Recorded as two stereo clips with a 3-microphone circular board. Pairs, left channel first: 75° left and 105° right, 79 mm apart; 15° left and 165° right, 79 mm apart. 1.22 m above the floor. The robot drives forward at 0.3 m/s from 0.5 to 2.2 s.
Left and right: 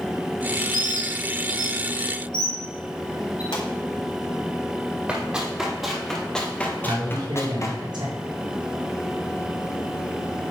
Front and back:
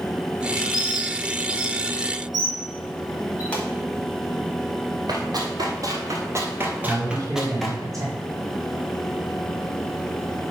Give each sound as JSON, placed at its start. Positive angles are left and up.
{"t": 0.7, "sound": "a bird", "azimuth_deg": 55, "distance_m": 4.0}
{"t": 3.5, "sound": "a pop", "azimuth_deg": 85, "distance_m": 3.0}
{"t": 5.1, "sound": "running footsteps", "azimuth_deg": 180, "distance_m": 2.5}
{"t": 6.8, "sound": "a man speaking", "azimuth_deg": -125, "distance_m": 3.0}